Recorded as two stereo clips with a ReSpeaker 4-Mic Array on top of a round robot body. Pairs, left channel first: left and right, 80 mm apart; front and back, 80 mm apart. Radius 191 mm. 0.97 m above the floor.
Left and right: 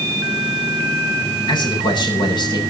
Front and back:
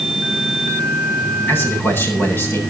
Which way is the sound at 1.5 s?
65° left.